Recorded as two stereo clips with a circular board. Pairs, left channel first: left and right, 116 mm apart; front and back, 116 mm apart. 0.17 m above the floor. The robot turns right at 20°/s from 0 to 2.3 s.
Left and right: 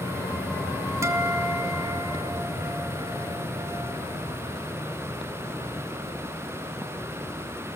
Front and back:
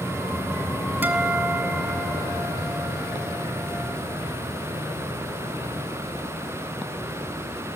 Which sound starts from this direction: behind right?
A guitar, at 1.0 s.